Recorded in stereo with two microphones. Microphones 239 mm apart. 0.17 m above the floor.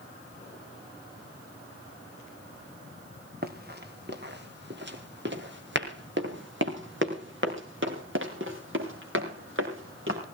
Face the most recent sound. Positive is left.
turn(degrees=-50)  # may be behind; listen again after turning